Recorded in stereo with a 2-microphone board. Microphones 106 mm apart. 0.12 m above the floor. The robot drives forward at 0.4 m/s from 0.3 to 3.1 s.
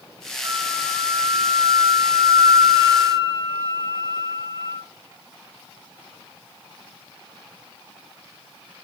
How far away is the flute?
About 1.8 m.